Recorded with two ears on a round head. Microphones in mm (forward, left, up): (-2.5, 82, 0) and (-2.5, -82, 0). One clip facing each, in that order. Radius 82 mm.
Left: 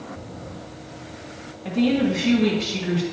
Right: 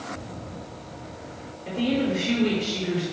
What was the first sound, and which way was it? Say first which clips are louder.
A woman speaking: left 4 dB; 75° left (ahead or behind).